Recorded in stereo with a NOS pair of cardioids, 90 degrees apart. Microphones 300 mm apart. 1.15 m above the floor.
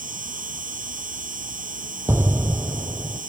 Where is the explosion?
10° right.